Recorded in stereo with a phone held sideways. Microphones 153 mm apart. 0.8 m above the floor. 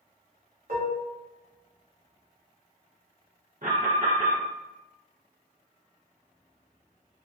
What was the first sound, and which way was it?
Dishes clattering, 65° right (ahead or behind).